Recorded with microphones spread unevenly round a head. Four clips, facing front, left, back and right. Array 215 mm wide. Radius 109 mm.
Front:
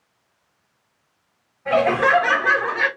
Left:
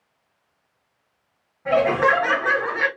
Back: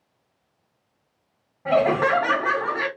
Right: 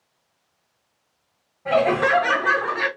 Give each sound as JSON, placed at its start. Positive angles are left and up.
{"t": 1.6, "sound": "laughter", "azimuth_deg": 175, "distance_m": 1.8}